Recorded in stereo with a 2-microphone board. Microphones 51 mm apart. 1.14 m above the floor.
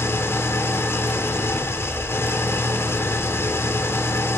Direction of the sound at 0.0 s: 60° left (ahead or behind).